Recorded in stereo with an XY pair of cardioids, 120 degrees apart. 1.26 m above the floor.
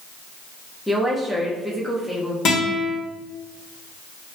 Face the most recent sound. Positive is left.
turn(degrees=60)